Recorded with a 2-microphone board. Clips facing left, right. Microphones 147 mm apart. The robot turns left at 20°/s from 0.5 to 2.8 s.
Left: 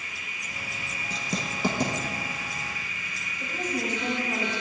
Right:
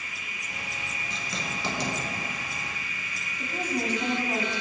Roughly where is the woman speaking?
Right.